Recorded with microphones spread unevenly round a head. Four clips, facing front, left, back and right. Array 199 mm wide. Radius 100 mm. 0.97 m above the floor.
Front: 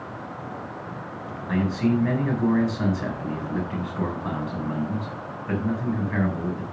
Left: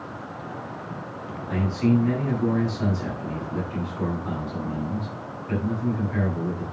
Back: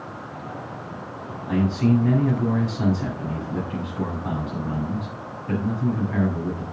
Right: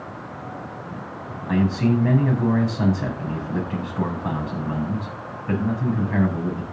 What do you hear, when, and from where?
1.5 s a man speaking: 90° right, 7.5 m